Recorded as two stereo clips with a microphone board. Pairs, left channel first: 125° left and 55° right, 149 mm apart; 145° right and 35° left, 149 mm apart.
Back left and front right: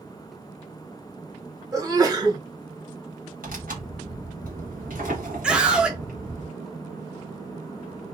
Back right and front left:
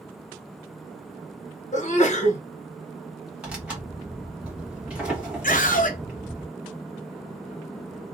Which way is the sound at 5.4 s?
140° right.